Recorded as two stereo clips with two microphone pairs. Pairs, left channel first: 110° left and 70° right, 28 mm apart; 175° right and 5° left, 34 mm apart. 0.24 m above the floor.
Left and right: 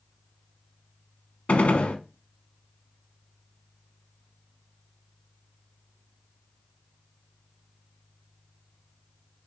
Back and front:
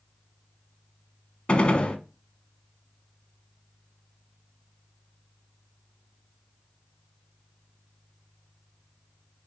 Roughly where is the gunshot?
Behind left.